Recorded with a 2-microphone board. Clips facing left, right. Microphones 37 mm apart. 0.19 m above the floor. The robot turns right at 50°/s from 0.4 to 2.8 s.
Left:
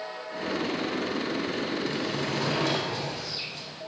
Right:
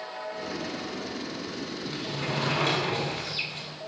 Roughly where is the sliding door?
Behind right.